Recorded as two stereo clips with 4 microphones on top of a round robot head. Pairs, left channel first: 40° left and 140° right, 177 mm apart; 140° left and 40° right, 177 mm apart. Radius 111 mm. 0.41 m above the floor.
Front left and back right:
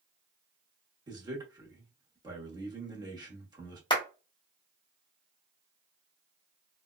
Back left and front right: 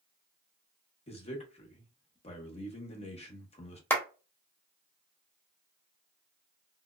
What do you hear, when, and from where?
1.1 s a man speaking: 165° left, 0.9 m
3.9 s a clap: 75° left, 1.1 m